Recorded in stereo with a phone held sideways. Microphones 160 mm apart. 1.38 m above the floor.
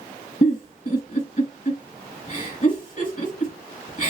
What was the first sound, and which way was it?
A giggle, 50° left (ahead or behind).